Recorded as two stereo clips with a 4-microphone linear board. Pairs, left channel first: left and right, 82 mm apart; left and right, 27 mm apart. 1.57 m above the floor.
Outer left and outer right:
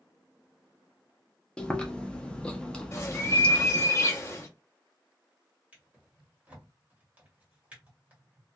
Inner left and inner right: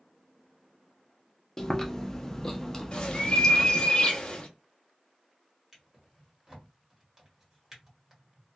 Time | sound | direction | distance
1.6 | chewing | 15° left (ahead or behind) | 0.5 m
2.9 | a bird | 35° left (ahead or behind) | 0.7 m
5.7 | a drawer | 20° right (ahead or behind) | 1.3 m